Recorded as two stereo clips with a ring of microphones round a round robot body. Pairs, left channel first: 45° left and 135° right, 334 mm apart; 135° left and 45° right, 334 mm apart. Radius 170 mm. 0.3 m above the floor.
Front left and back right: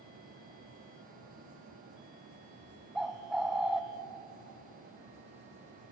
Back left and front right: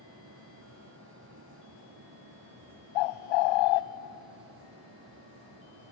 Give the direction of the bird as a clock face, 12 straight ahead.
7 o'clock.